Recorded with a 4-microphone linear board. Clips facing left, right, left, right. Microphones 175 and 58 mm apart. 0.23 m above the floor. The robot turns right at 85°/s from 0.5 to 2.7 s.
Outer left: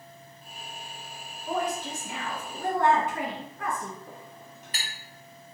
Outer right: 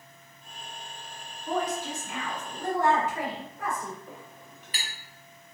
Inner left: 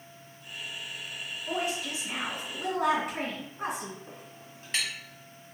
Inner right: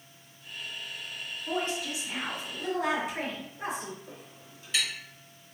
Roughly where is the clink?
Left.